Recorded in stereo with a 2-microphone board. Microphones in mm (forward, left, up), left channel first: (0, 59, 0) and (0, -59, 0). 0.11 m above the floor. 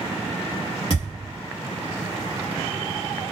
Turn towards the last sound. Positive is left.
turn(degrees=45)  # may be behind; listen again after turning